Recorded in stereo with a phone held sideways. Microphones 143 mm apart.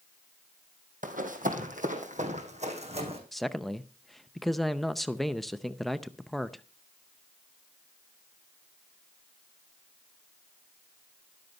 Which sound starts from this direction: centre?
A man speaking, at 3.3 s.